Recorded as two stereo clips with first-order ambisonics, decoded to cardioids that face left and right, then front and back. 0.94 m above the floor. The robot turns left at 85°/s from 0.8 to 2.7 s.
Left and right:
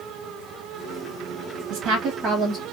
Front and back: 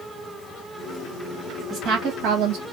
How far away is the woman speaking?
About 1.2 m.